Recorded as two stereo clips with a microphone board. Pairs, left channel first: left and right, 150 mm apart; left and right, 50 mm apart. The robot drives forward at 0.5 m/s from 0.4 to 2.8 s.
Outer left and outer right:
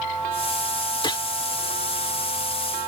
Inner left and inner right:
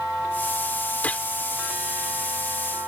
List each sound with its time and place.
1.0 s a gunshot: 30° left (ahead or behind); by 1.3 s 35° left (ahead or behind)